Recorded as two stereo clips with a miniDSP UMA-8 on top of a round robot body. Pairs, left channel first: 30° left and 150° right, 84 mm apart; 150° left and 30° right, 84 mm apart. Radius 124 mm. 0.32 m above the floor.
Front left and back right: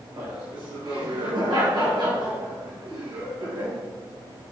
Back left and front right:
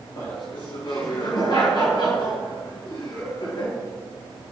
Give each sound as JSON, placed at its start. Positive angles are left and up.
{"t": 0.2, "sound": "laughter", "azimuth_deg": 180, "distance_m": 6.5}